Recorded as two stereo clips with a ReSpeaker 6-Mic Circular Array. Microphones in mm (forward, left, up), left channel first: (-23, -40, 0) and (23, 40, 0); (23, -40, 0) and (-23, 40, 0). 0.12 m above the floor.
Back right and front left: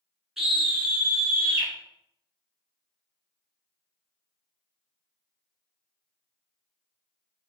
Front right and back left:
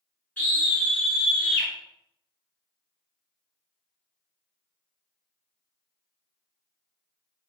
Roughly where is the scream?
Ahead right.